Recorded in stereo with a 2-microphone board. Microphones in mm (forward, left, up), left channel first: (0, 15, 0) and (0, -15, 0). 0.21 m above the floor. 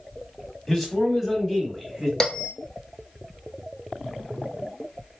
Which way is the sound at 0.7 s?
10° left (ahead or behind).